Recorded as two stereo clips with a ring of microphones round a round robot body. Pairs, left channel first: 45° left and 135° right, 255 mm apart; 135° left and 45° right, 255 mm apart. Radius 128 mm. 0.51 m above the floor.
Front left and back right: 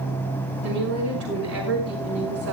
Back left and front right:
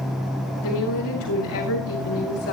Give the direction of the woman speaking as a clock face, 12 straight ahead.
6 o'clock.